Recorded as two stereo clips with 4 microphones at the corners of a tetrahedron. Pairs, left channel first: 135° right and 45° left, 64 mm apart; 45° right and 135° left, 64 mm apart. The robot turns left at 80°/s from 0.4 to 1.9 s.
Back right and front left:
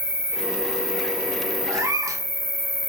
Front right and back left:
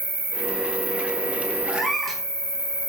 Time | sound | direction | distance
0.0 | an insect | 80° left | 1.1 m
1.7 | a cat meowing | 60° left | 0.6 m